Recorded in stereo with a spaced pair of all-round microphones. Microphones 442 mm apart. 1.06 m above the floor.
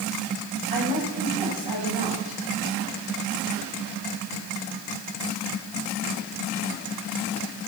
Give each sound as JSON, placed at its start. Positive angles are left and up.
{"t": 0.7, "sound": "a woman speaking", "side_deg": 75, "distance_m": 6.5}